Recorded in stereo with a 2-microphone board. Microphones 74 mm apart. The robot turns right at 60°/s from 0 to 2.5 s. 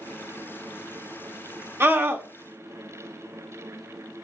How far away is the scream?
About 1.1 m.